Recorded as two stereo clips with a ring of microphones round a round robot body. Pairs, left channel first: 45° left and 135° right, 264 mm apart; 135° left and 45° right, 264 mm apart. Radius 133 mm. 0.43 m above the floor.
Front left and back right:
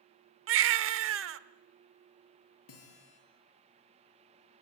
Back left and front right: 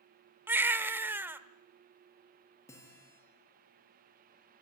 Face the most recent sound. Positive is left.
turn(degrees=55)